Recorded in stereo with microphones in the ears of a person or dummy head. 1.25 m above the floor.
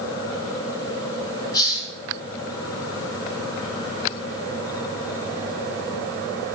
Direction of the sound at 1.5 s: 20° left (ahead or behind).